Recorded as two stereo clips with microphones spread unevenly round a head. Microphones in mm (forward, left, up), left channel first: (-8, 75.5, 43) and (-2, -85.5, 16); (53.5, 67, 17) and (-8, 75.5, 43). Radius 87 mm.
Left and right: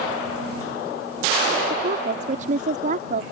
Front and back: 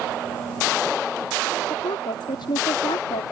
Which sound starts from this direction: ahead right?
A woman speaking, at 1.7 s.